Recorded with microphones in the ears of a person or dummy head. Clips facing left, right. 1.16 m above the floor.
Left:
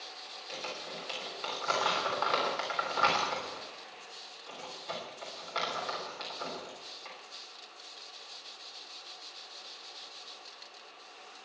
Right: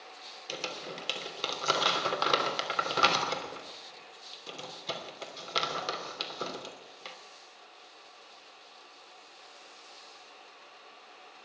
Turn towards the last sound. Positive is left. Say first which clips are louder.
# right 3 dB
turn(degrees=-45)  # may be behind; listen again after turning